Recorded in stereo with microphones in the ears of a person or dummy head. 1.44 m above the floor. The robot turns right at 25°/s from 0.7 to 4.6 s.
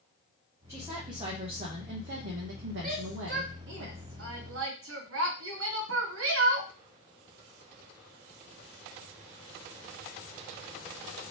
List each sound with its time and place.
0.7 s a woman speaking: 165° right, 0.8 m; by 3.8 s 90° right, 0.8 m
2.8 s a shout: 40° right (ahead or behind), 0.9 m; by 6.7 s 70° right (ahead or behind), 0.9 m